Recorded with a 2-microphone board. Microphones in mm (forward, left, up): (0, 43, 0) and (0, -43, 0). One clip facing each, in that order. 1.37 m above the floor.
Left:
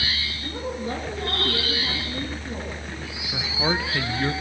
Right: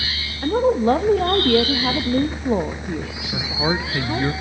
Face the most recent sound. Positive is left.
turn(degrees=-10)  # may be behind; listen again after turning